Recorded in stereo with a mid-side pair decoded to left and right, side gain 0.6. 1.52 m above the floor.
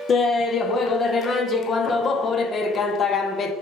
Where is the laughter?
40° left, 0.5 m.